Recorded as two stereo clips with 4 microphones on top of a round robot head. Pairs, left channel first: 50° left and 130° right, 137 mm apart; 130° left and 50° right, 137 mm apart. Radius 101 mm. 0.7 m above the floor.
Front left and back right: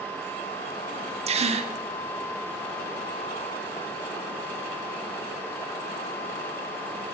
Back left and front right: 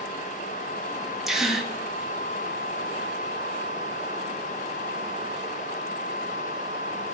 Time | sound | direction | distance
1.3 | a gasp | 135° right | 1.0 m